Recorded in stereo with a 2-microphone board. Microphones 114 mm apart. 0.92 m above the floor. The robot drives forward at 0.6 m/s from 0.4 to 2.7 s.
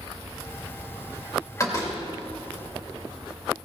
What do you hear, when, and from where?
1.6 s a door slam: 30° left (ahead or behind), 2.5 m; by 2.0 s 35° left (ahead or behind), 2.5 m